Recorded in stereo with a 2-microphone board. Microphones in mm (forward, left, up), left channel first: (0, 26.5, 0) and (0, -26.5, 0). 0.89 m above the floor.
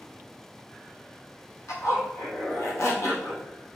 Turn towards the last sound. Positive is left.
turn(degrees=75)  # may be behind; listen again after turning